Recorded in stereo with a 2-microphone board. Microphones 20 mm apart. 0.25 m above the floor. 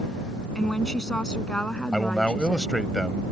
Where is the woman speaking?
30° left (ahead or behind); by 2.7 s 50° left (ahead or behind).